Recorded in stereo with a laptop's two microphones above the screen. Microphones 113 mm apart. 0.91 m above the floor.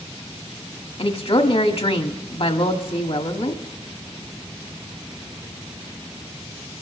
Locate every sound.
1.0 s a woman speaking: 65° left (ahead or behind), 1.5 m